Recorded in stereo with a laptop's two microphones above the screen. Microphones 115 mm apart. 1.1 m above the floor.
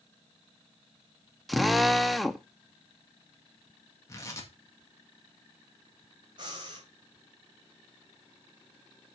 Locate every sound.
1.5 s a drill: centre (ahead or behind), 0.6 m
4.1 s tearing paper: 25° left (ahead or behind), 1.9 m
6.4 s breathing: 40° right (ahead or behind), 3.5 m